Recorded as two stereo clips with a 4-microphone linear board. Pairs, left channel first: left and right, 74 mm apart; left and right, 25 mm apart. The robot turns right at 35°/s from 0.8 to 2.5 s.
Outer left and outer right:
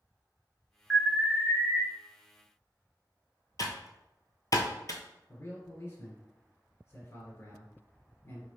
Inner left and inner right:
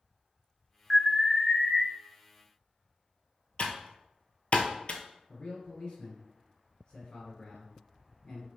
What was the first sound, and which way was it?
An alarm, 10° right (ahead or behind).